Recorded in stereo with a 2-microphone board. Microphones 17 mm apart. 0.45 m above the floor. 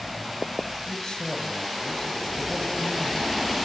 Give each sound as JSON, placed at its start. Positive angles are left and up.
{"t": 0.9, "sound": "a man speaking", "side_deg": 65, "distance_m": 5.5}